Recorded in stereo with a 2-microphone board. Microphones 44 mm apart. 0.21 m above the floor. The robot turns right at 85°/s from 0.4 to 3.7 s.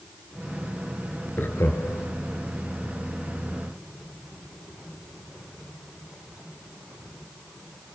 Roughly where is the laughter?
Left.